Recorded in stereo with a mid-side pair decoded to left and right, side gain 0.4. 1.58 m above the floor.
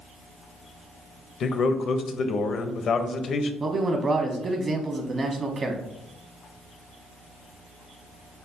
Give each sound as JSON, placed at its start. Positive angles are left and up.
{"t": 1.4, "sound": "a man speaking", "azimuth_deg": 65, "distance_m": 0.6}
{"t": 3.6, "sound": "a man speaking", "azimuth_deg": -45, "distance_m": 1.0}